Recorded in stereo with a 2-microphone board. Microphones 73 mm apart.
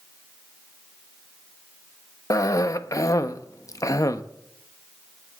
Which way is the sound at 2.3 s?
50° left (ahead or behind).